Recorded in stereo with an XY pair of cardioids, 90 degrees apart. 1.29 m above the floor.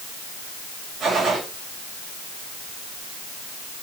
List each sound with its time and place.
1.0 s a gunshot: 55° right, 6.5 m